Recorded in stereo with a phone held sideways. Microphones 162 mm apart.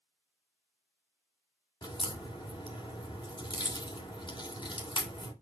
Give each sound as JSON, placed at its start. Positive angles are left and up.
{"t": 1.8, "sound": "a crack", "side_deg": 30, "distance_m": 2.5}